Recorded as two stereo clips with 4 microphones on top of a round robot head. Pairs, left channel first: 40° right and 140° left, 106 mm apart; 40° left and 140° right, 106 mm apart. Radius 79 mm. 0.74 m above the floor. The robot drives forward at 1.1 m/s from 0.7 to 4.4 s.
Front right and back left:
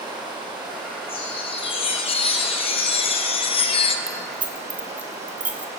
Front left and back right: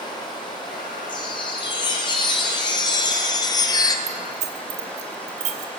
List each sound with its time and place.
0.0 s running water: 90° left, 8 m; by 5.8 s 120° left, 9 m
1.1 s a chime: 5° right, 5 m; by 4.0 s 10° right, 2.0 m
4.1 s keys jangling: 135° right, 1.8 m; by 5.7 s 145° right, 2 m